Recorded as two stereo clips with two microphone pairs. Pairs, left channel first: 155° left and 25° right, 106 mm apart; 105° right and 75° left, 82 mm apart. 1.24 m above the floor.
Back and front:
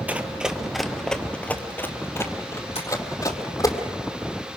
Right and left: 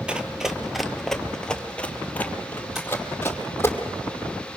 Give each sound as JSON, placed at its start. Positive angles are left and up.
{"t": 0.1, "sound": "running footsteps", "azimuth_deg": 30, "distance_m": 1.3}
{"t": 2.8, "sound": "tapping", "azimuth_deg": 160, "distance_m": 3.5}